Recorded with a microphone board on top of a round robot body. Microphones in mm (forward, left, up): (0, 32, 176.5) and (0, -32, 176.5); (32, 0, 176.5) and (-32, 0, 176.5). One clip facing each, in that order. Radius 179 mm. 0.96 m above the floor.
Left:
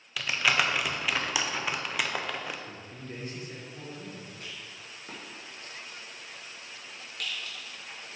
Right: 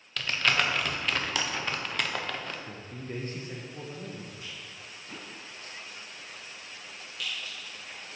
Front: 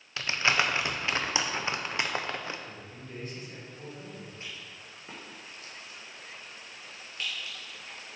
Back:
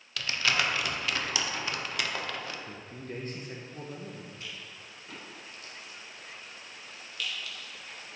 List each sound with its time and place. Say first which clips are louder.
0.2 s crumpling: left 1 dB, front 2 dB; 15° left, 0.9 m
2.7 s a man speaking: right 3 dB, back 3 dB; 140° right, 1.1 m
4.4 s a rattle: even, even; 60° left, 1.8 m